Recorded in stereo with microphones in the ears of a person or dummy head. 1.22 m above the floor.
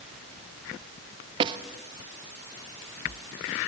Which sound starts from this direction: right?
A snare drum, at 1.4 s.